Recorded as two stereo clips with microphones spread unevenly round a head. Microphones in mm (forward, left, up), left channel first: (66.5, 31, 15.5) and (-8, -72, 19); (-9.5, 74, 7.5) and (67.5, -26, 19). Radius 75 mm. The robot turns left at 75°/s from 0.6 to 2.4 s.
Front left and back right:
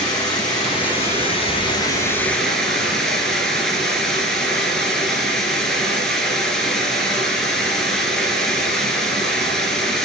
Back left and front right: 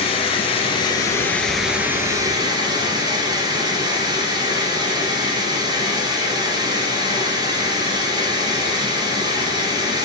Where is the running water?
105° left, 2 m; by 10.1 s 30° right, 2 m.